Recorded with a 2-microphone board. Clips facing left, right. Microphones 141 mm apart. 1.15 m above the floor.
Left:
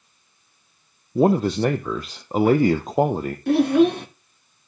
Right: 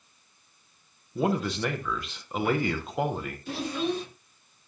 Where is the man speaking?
40° left (ahead or behind), 0.6 m.